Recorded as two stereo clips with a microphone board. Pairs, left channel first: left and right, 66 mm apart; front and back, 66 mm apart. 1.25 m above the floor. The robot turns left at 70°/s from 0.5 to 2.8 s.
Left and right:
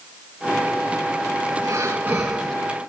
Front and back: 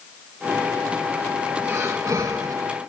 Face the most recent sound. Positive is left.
turn(degrees=155)